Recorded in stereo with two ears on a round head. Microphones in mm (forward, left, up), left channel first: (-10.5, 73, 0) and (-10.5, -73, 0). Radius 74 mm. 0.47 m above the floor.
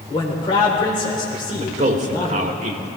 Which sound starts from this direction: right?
A man speaking, at 1.5 s.